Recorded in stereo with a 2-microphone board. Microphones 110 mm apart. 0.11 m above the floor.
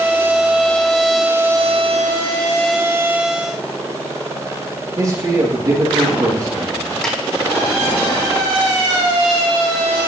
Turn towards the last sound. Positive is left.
turn(degrees=5)  # may be behind; listen again after turning